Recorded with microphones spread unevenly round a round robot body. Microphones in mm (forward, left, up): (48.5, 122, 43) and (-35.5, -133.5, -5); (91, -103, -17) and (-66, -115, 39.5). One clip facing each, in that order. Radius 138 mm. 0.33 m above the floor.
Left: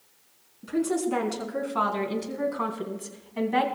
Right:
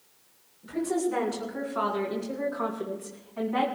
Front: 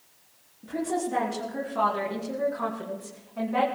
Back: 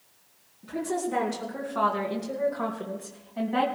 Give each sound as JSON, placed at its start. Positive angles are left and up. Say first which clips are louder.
{"t": 0.6, "sound": "a woman speaking", "louder": "left 2 dB, front 1 dB", "azimuth_deg": 90, "distance_m": 5.0}